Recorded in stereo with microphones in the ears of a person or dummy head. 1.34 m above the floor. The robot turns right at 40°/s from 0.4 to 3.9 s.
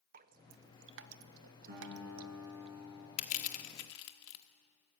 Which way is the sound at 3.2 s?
40° left (ahead or behind).